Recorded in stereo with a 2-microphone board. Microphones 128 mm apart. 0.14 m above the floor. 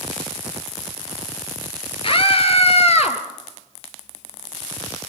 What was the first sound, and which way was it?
A scream, 45° left (ahead or behind).